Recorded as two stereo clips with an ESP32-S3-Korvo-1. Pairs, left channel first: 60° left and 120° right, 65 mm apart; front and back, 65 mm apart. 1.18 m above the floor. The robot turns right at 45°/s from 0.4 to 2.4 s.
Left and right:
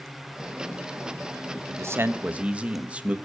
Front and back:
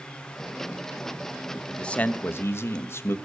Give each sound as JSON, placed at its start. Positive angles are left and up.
{"t": 1.7, "sound": "a man speaking", "azimuth_deg": -80, "distance_m": 1.1}